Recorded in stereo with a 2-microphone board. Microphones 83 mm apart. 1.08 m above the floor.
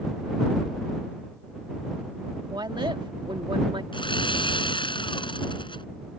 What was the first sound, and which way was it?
A woman speaking, 60° right (ahead or behind).